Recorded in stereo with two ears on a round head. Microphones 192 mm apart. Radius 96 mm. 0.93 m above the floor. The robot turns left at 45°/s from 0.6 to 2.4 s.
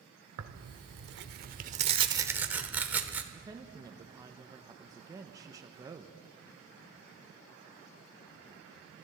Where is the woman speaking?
15° right (ahead or behind), 0.8 m.